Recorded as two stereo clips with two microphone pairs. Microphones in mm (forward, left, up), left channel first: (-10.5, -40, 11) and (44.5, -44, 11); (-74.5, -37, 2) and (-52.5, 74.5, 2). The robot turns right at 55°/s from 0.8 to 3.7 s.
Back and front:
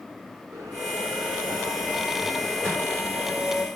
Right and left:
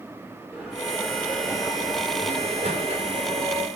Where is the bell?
20° right, 6.5 m; by 3.7 s 140° left, 6.5 m.